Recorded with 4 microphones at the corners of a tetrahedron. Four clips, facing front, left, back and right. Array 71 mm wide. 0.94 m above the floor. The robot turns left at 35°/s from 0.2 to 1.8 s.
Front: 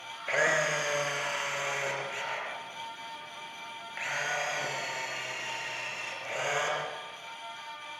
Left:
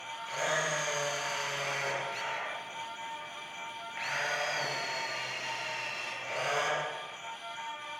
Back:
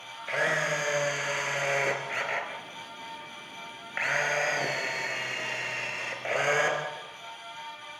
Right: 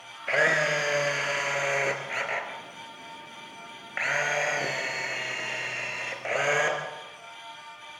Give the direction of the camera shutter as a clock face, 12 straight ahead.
2 o'clock.